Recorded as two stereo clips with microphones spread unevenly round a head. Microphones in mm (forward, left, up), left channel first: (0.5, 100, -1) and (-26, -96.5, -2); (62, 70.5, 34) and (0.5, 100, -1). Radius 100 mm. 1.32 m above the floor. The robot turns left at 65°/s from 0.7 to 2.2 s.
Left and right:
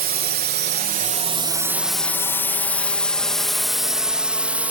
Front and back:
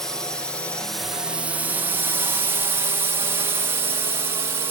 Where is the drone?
130° right; by 4.7 s straight behind.